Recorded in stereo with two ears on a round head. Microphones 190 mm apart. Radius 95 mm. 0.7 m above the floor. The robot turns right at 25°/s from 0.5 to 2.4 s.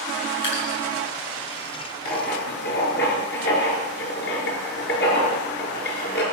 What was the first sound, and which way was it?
Dripping, 65° left (ahead or behind).